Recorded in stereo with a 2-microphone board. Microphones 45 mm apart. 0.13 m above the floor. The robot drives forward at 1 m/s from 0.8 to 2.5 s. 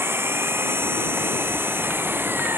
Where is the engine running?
65° right (ahead or behind); by 2.6 s 60° right (ahead or behind).